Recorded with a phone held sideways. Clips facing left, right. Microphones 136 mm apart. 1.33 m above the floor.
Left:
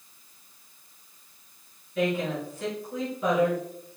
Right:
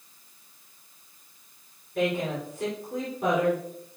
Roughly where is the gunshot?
I don't hear a gunshot.